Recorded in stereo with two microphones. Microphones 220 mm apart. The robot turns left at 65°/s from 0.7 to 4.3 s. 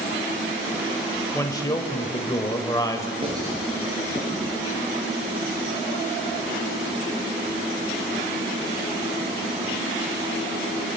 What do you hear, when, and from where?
1.3 s a man speaking: 10° left (ahead or behind), 1.1 m
3.2 s writing: 30° right (ahead or behind), 4.5 m; by 4.5 s 40° left (ahead or behind), 4.5 m